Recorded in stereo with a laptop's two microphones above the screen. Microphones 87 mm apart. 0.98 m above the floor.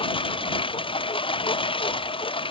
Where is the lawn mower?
85° left; by 2.5 s 80° left.